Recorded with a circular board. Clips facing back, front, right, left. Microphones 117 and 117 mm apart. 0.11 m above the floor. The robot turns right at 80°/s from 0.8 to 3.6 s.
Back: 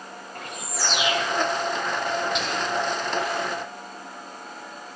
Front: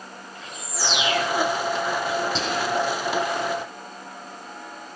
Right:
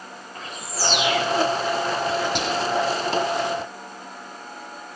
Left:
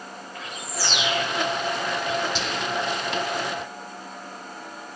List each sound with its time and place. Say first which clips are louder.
0.3 s a bird: back 1 dB, right 2 dB; 145° right, 4 m; by 1.2 s 110° right, 4 m
2.4 s whispering: front 2 dB, right 5 dB; 55° right, 4.5 m; by 2.8 s 20° right, 4.5 m